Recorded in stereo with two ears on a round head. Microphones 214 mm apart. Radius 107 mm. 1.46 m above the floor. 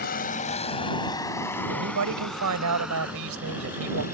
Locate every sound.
0.0 s a vehicle: 40° left (ahead or behind); by 4.1 s 10° right (ahead or behind)
1.7 s a man speaking: 90° right